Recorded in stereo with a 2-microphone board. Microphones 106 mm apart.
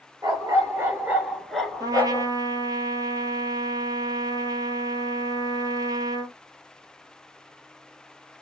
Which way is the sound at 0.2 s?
35° right (ahead or behind).